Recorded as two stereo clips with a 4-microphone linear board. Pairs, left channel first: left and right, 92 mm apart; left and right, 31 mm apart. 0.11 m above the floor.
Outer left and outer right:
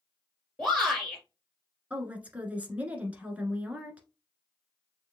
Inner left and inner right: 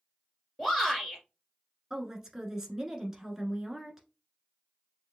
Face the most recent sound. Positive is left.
turn(degrees=-15)  # may be behind; listen again after turning